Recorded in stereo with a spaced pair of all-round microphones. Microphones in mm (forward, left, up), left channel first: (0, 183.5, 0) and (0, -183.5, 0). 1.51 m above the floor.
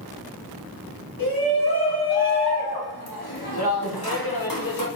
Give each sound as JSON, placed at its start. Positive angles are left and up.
{"t": 1.2, "sound": "a shout", "side_deg": 70, "distance_m": 3.5}